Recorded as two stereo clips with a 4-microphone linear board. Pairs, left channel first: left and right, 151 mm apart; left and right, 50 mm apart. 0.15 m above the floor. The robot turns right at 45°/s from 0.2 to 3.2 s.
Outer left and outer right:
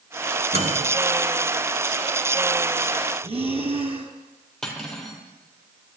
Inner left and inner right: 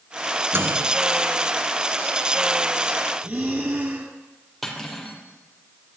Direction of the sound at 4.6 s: 5° left (ahead or behind).